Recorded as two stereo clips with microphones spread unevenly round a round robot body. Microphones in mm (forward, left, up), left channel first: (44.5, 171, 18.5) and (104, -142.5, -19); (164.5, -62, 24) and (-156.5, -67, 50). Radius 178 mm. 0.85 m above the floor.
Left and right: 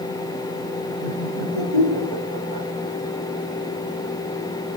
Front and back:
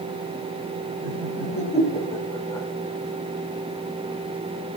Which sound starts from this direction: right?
Laughter, at 1.0 s.